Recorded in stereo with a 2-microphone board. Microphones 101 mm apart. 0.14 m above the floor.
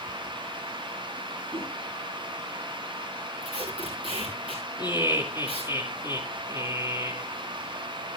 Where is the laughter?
30° right (ahead or behind), 3.5 m.